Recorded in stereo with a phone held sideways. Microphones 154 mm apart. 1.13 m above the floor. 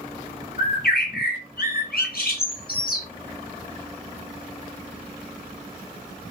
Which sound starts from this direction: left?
A bird, at 0.6 s.